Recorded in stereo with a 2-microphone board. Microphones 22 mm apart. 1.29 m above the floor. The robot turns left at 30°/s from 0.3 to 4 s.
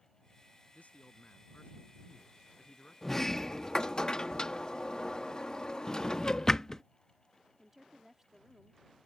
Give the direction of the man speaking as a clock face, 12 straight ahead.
9 o'clock.